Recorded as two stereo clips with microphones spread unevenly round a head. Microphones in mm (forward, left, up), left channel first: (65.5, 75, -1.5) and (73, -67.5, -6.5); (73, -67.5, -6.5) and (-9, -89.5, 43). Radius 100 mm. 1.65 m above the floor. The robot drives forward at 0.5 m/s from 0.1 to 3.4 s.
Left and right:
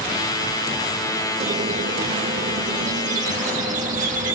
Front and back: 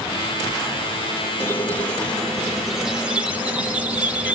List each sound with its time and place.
1.4 s a squeak: 70° right, 1.3 m; by 4.3 s 120° right, 1.4 m